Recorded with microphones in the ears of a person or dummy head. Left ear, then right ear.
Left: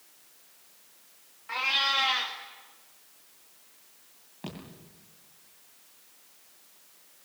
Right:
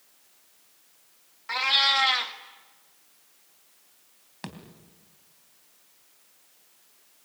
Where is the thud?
60° right (ahead or behind), 3 m.